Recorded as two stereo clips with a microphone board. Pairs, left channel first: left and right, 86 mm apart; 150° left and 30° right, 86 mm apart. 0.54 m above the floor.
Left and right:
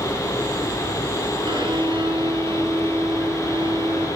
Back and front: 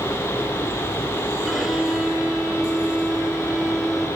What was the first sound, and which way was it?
A violin, 115° right.